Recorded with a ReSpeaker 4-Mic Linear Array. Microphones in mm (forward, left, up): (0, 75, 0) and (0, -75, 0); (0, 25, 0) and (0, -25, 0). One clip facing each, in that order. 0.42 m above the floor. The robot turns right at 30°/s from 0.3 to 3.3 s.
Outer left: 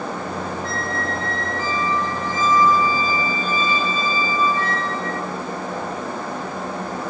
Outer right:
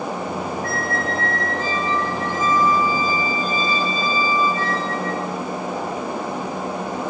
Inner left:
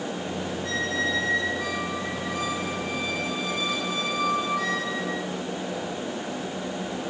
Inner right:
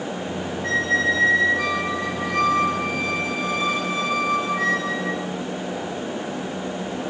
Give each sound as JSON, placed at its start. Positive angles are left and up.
{"t": 0.6, "sound": "a squeak", "azimuth_deg": -120, "distance_m": 1.2}